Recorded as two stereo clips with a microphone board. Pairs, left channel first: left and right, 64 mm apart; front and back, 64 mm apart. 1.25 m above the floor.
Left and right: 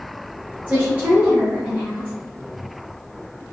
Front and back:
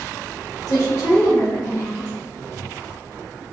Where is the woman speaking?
20° right, 0.8 m.